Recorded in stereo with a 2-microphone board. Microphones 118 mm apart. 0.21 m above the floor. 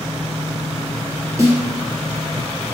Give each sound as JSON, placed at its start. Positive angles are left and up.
{"t": 1.4, "sound": "a snare drum", "side_deg": -30, "distance_m": 1.6}